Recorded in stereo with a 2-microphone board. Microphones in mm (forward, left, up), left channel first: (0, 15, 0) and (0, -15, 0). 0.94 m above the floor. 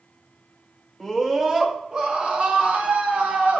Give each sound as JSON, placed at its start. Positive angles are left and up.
{"t": 1.0, "sound": "a scream", "side_deg": 0, "distance_m": 1.8}